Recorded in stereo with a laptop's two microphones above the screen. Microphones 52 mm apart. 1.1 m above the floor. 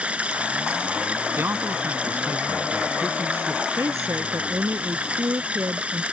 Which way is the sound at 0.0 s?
25° right (ahead or behind).